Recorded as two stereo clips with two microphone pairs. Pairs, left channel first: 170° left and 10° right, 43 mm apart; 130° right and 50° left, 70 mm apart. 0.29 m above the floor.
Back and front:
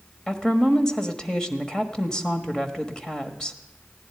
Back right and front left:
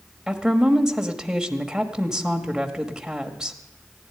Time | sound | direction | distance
0.3 | a woman speaking | 125° left | 1.3 m